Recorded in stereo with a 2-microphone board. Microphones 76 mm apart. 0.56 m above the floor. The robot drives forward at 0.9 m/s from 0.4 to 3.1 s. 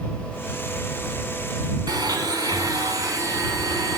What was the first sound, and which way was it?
A blender, 60° right (ahead or behind).